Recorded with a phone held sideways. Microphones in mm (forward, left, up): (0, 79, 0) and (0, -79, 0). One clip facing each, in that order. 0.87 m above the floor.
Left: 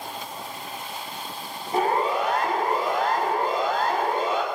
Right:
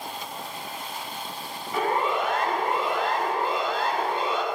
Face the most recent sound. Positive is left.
turn(degrees=50)  # may be behind; listen again after turning